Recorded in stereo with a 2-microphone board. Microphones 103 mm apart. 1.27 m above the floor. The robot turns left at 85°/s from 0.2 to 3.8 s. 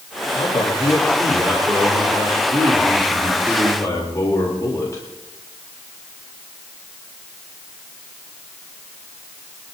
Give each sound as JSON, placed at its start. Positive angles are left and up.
{"t": 0.3, "sound": "a man speaking", "azimuth_deg": 80, "distance_m": 3.5}